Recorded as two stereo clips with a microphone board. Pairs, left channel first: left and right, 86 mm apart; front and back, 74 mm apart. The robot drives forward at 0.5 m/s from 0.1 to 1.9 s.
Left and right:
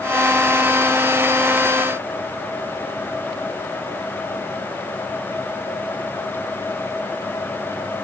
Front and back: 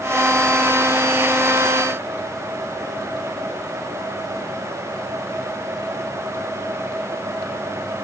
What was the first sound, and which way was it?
Only background noise.